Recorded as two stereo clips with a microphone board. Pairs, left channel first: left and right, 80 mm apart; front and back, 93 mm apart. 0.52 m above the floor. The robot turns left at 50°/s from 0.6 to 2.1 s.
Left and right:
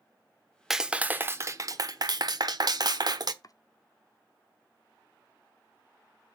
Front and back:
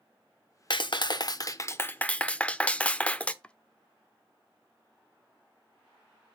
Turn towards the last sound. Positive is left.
turn(degrees=75)